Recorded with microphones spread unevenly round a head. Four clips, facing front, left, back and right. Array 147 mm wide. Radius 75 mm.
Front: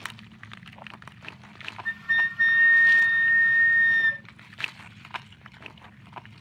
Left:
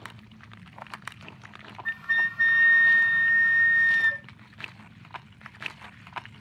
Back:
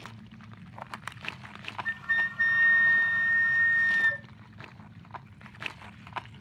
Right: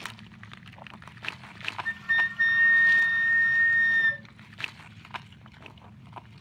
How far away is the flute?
About 1.2 m.